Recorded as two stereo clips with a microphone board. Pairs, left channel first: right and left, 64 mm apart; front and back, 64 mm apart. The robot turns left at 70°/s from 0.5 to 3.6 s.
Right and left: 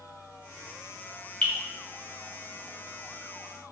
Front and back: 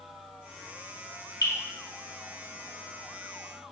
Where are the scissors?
I don't hear scissors.